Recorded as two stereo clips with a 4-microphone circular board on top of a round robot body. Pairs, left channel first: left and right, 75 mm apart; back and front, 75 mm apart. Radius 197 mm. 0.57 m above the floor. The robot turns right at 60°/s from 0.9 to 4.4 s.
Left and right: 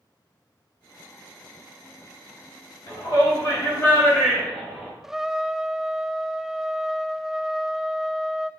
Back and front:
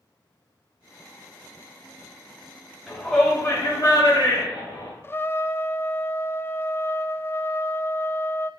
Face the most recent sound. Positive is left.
turn(degrees=-170)